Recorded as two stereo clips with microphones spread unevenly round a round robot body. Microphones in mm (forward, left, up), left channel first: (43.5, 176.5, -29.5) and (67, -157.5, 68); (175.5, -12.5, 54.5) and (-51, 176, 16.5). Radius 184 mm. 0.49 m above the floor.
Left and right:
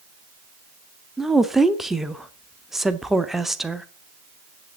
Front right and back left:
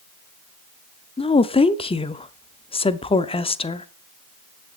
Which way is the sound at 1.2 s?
30° left.